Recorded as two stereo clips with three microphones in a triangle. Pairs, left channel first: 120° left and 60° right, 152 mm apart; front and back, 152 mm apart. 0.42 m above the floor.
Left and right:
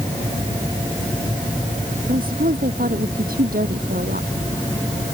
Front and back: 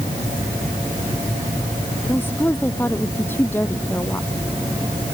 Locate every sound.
2.1 s a woman speaking: 75° right